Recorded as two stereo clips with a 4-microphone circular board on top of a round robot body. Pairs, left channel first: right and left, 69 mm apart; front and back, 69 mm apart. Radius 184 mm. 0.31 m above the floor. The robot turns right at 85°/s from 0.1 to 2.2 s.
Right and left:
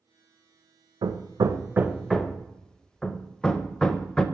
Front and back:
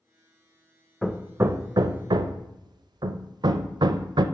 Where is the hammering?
90° left, 0.5 m; by 4.2 s 170° right, 0.5 m.